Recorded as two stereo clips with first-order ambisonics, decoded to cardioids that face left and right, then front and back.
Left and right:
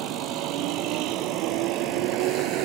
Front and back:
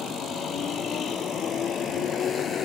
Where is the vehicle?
60° right.